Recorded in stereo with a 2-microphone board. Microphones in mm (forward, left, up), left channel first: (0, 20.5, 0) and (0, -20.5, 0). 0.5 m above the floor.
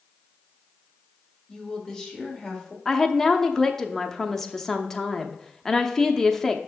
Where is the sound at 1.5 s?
10° left (ahead or behind), 1.8 m.